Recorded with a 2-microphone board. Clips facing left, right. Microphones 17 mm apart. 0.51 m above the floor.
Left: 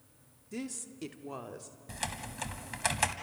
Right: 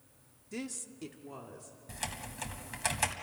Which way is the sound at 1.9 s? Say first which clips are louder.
Left 2 dB; 10° left (ahead or behind).